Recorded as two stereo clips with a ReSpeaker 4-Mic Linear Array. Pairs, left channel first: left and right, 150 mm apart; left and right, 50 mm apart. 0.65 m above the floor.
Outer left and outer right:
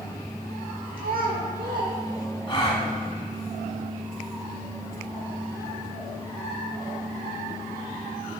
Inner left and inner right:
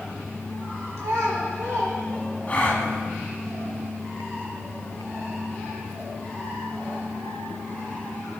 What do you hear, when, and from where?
1.0 s a child speaking: 70° right (ahead or behind), 1.7 m
2.5 s a gasp: 30° left (ahead or behind), 1.5 m